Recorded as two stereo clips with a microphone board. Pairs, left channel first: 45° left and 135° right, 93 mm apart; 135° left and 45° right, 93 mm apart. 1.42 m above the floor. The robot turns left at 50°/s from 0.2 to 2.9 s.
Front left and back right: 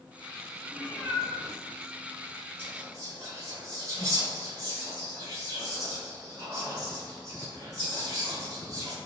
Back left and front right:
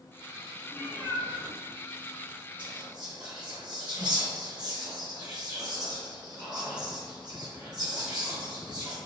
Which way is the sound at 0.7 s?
170° left.